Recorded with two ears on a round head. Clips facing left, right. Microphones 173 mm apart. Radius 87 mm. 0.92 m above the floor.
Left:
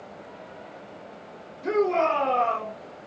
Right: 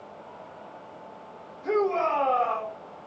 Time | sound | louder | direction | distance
1.6 | a shout | left 2 dB | 55° left (ahead or behind) | 1.2 m